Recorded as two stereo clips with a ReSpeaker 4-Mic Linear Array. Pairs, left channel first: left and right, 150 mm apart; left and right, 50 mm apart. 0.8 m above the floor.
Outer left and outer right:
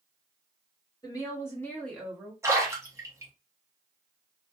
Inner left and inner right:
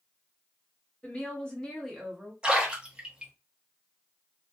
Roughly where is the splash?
Centre.